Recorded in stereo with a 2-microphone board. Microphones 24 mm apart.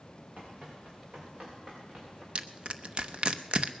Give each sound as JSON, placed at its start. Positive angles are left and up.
{"t": 0.4, "sound": "running footsteps", "side_deg": -50, "distance_m": 7.0}
{"t": 2.4, "sound": "crushing", "side_deg": -45, "distance_m": 0.8}